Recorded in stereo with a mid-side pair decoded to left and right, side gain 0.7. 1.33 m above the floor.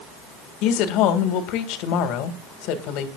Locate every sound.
0.6 s a woman speaking: 65° left, 1.9 m